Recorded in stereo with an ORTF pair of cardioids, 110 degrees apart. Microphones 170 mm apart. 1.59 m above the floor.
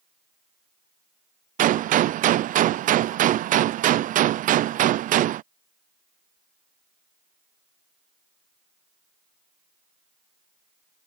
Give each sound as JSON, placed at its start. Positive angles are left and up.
{"t": 1.6, "sound": "a gunshot", "azimuth_deg": -55}